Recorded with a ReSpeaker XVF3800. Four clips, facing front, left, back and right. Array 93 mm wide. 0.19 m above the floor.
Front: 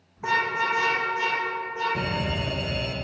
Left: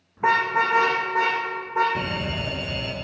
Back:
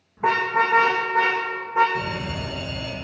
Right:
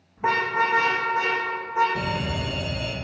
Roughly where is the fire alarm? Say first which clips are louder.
Right 1 dB, even; ahead left.